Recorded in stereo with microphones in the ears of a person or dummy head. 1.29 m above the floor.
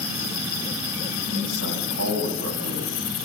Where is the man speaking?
90° right, 7 m.